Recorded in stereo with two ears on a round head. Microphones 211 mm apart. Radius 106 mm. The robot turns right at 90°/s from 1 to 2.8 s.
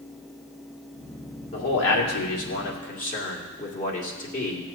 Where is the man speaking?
30° left, 1.9 m; by 4.8 s 145° left, 1.9 m.